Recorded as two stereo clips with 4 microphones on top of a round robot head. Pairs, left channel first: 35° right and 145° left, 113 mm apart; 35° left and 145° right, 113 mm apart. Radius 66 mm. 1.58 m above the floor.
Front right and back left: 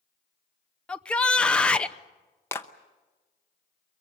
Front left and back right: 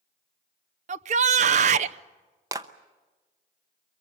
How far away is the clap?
About 0.8 m.